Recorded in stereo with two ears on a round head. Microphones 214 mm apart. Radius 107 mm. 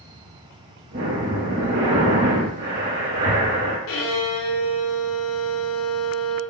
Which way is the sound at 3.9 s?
60° left (ahead or behind).